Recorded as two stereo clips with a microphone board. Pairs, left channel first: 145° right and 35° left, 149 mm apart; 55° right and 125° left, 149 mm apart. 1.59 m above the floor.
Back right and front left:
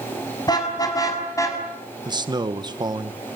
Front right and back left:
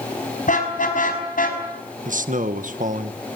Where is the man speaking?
95° left, 1.8 m.